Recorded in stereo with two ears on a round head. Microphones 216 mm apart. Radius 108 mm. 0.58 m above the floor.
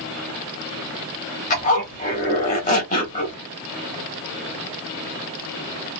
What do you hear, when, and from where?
1.5 s a zipper: 30° left (ahead or behind), 1.2 m